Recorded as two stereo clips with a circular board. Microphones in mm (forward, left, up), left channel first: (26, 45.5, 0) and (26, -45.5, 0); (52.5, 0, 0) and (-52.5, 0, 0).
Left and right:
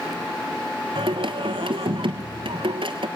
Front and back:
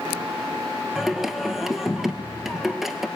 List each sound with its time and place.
0.9 s singing: 95° right, 1.1 m